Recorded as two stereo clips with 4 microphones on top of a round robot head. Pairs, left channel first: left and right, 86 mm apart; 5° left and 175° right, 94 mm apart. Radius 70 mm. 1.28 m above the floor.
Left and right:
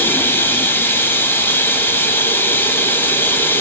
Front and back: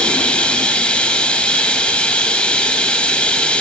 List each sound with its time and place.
0.0 s running water: 70° left, 1.1 m